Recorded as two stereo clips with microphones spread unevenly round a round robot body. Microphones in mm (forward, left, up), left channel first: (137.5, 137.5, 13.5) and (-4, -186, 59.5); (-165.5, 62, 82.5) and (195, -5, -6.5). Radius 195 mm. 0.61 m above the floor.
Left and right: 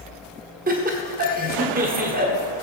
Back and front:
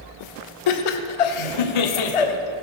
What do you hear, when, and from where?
0.7 s laughter: 175° left, 1.5 m